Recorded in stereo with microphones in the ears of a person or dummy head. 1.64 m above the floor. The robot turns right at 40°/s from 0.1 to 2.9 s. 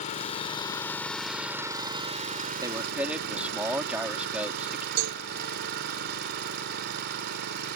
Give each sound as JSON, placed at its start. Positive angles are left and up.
{"t": 0.0, "sound": "an engine running", "azimuth_deg": 130}
{"t": 2.6, "sound": "a man speaking", "side_deg": -20}
{"t": 5.0, "sound": "a cowbell", "side_deg": -85}